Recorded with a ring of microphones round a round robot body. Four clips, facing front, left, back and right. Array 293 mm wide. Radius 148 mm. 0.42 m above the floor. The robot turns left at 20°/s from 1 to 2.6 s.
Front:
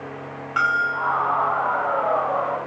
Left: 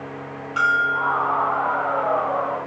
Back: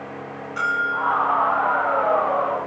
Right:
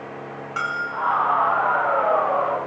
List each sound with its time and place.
0.6 s a bell: 15° right, 4 m; by 1.2 s 20° right, 4 m